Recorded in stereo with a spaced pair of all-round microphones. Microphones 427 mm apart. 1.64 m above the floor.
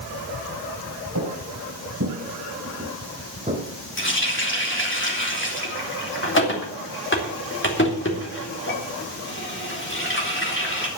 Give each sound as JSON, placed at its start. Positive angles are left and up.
{"t": 1.1, "sound": "footsteps", "side_deg": -40, "distance_m": 2.5}
{"t": 4.0, "sound": "a running tap", "side_deg": 25, "distance_m": 3.0}